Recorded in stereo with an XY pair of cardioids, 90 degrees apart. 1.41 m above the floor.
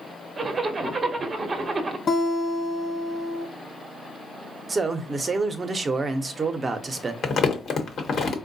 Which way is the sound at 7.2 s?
65° left.